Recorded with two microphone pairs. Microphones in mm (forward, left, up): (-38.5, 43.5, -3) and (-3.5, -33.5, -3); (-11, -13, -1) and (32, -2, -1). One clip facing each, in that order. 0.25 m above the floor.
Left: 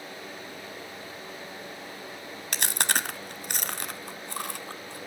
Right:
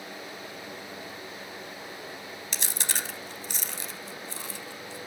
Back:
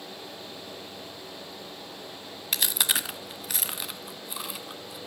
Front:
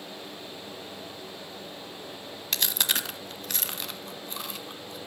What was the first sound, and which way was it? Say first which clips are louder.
Chewing: left 7 dB, back 1 dB; 110° left.